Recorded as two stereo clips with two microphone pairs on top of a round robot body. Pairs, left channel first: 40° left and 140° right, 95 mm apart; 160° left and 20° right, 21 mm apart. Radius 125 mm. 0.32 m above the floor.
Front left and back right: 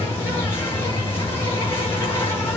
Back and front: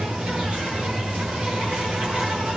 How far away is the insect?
About 7.5 m.